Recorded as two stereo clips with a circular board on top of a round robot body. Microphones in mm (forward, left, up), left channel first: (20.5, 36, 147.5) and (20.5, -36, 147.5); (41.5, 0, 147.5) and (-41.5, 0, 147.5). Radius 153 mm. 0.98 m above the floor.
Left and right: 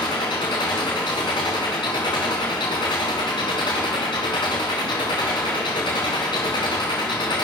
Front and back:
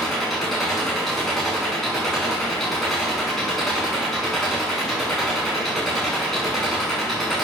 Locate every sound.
0.0 s an engine running: 85° left, 4.5 m